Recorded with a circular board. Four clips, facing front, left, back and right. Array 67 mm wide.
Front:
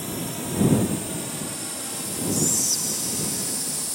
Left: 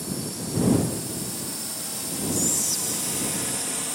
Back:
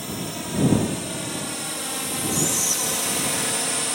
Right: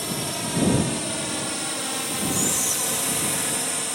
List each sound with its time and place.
0.0 s a drone: 100° right; by 4.0 s 160° right
2.3 s whispering: 150° right